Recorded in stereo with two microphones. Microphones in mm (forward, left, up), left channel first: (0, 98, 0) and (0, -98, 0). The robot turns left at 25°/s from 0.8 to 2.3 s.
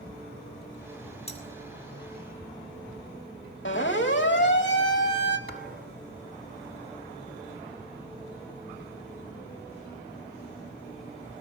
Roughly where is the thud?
Right.